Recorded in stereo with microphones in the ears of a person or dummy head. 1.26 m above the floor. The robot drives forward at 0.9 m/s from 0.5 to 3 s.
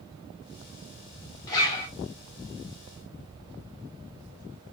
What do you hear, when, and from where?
1.5 s a zipper: 25° left (ahead or behind), 3 m